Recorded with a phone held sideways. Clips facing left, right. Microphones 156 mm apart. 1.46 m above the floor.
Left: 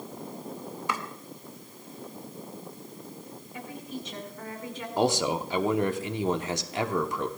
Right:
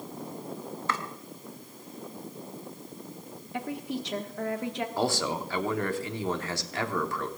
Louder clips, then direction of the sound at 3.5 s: Right 6 dB; 65° right (ahead or behind).